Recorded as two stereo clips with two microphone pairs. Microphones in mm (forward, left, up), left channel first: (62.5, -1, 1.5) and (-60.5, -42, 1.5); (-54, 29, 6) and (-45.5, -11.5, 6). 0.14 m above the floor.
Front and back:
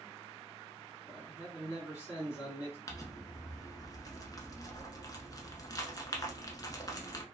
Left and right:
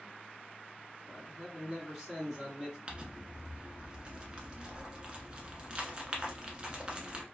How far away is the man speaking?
About 1.7 m.